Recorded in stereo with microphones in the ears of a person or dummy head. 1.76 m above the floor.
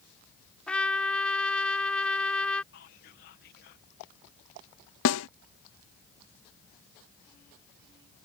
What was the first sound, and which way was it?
A trumpet, 10° left (ahead or behind).